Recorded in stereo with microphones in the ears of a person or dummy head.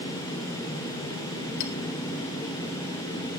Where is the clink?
65° left (ahead or behind), 3.5 m.